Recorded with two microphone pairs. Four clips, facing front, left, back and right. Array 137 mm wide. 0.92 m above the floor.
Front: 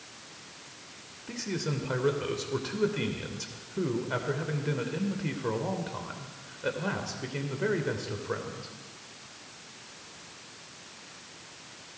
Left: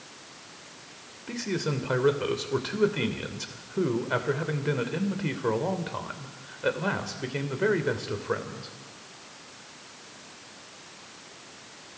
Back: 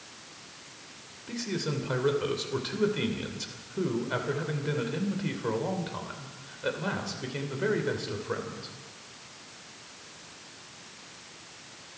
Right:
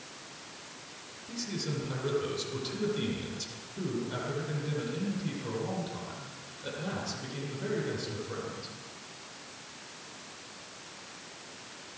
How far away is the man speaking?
About 3 m.